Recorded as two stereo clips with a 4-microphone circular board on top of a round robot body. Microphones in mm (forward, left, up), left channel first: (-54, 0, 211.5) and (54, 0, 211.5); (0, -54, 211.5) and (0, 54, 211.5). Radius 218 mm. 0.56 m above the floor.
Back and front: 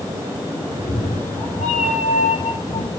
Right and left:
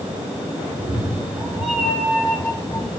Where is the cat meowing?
170° left, 6.5 m; by 2.9 s 170° right, 3.5 m.